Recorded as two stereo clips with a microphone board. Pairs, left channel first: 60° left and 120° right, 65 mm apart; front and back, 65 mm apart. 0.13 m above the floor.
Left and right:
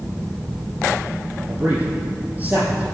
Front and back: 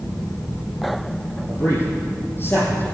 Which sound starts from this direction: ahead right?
A man speaking, at 1.5 s.